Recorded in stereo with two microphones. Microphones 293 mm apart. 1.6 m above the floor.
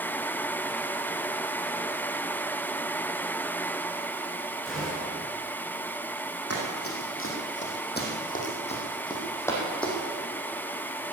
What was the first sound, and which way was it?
A gunshot, centre (ahead or behind).